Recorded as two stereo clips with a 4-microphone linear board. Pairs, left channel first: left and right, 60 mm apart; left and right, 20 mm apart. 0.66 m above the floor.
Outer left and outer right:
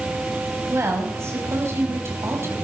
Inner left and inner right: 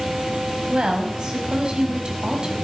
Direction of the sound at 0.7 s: 45° right (ahead or behind).